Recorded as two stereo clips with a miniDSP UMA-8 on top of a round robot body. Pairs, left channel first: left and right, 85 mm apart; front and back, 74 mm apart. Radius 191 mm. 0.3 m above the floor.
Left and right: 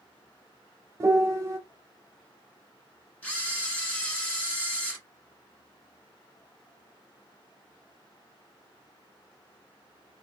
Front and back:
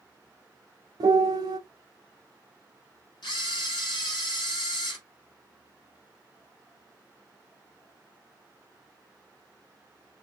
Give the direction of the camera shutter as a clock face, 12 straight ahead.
11 o'clock.